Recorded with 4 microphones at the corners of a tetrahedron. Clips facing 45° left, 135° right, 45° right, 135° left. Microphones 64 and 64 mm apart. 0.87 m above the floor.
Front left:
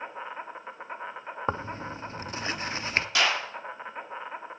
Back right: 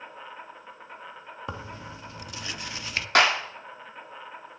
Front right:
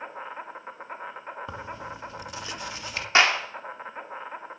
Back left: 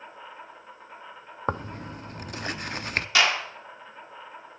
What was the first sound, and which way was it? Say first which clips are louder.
An insect: front left 4 dB, front right 6 dB; 10° right.